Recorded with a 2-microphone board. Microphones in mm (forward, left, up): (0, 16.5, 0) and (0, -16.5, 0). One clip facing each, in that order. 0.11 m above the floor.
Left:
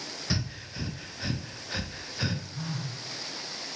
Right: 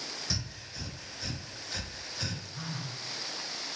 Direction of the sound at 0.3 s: 25° left (ahead or behind).